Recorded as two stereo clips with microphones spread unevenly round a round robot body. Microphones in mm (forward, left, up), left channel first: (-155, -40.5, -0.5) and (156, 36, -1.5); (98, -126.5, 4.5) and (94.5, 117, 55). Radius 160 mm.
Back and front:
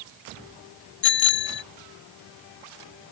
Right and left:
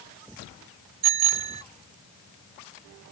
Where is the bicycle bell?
135° left.